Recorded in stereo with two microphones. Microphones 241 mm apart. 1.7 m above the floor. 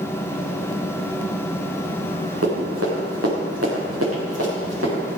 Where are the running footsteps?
75° right (ahead or behind), 7.5 m; by 5.2 s 70° right (ahead or behind), 9 m.